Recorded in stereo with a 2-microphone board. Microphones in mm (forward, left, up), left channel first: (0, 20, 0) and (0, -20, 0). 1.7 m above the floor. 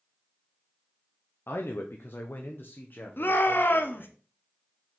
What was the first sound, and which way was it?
A man speaking, 85° left.